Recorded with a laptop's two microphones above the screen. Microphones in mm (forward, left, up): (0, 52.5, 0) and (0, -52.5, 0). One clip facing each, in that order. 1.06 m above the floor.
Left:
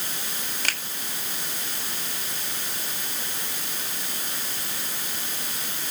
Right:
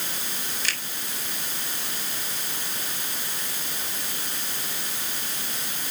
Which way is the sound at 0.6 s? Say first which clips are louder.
Left 2 dB; 50° left (ahead or behind).